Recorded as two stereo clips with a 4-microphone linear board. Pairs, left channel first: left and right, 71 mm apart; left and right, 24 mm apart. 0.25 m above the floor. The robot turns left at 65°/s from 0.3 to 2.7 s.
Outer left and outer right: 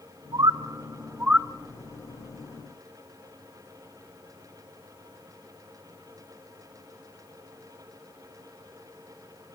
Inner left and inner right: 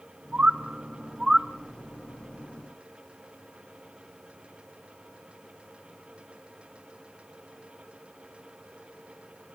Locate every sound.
0.3 s a bird: 85° right, 0.5 m; by 1.5 s 10° right (ahead or behind), 0.5 m